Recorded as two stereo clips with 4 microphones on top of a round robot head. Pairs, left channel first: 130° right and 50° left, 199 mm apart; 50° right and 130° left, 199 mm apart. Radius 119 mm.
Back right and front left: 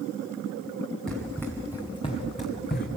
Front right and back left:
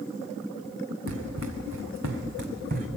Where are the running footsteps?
145° left, 2.5 m; by 2.9 s 175° right, 2 m.